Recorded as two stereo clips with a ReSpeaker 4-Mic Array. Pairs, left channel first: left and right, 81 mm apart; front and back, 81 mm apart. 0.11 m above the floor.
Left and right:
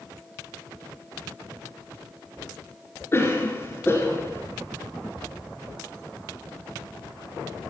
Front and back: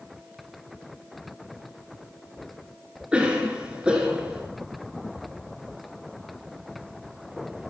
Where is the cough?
115° left, 1.8 m.